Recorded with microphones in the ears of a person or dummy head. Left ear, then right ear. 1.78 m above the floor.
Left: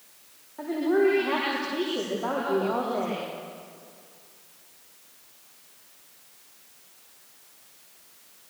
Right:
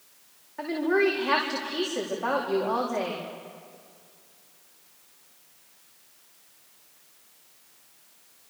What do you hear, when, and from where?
0.6 s a woman speaking: 80° right, 4.5 m